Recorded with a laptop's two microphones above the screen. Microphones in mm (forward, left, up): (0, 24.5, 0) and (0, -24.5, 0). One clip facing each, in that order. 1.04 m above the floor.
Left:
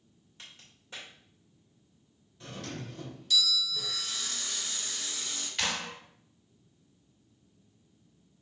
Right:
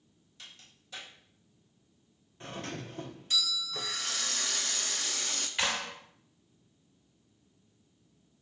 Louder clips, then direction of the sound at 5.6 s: Right 1 dB; 15° right (ahead or behind).